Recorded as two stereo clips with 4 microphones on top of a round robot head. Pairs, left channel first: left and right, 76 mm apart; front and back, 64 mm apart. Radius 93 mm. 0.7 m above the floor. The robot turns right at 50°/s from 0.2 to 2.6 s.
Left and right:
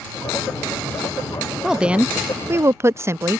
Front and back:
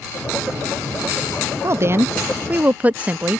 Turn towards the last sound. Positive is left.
turn(degrees=-125)